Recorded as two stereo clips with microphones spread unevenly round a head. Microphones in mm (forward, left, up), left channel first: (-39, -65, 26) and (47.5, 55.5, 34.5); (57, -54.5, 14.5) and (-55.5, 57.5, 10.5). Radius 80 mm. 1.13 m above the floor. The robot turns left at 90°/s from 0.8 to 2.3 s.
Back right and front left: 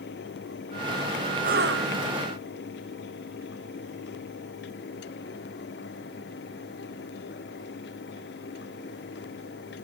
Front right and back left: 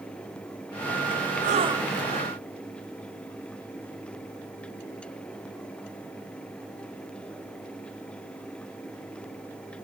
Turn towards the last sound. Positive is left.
turn(degrees=15)